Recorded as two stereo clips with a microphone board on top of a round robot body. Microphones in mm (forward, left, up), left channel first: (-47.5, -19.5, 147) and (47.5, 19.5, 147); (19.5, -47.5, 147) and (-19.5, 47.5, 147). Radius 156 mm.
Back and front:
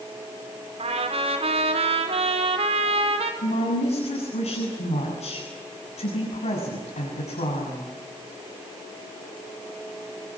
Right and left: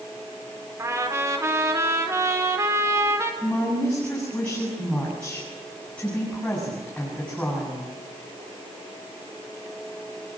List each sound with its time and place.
0.8 s a trumpet: 50° left, 4.5 m
3.4 s a woman speaking: 150° right, 8 m